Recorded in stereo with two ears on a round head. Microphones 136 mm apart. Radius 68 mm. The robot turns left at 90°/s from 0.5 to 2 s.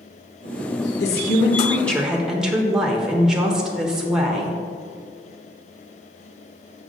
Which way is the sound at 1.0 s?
85° left.